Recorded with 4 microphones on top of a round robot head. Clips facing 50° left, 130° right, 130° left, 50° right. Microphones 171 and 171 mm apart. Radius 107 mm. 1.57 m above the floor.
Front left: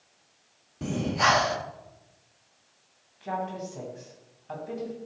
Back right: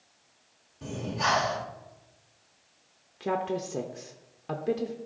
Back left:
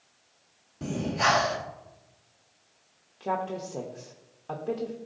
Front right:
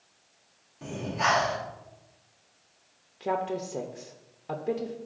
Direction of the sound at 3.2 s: 130° right.